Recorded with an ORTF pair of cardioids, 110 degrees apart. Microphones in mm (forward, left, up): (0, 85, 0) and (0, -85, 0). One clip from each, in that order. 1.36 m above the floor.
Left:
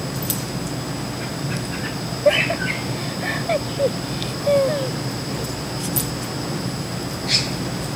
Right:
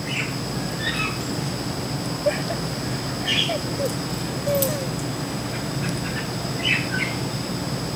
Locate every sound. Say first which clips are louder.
2.2 s laughter: left 8 dB; 35° left